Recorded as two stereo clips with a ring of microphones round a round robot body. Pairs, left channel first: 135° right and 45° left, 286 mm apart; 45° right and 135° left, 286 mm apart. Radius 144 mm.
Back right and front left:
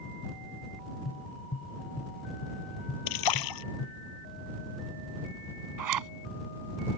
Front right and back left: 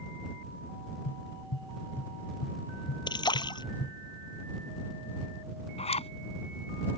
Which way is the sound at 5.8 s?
25° left.